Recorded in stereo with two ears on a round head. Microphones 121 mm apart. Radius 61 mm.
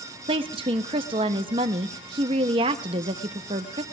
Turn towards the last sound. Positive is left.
turn(degrees=-40)  # may be behind; listen again after turning